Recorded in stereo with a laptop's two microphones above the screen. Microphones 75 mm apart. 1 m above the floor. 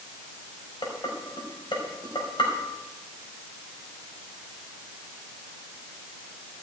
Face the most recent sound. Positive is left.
turn(degrees=85)